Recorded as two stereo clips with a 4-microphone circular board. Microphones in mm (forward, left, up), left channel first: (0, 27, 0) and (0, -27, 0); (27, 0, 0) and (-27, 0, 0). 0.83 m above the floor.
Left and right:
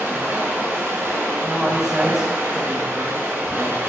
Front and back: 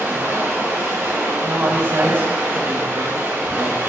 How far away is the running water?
About 1.3 m.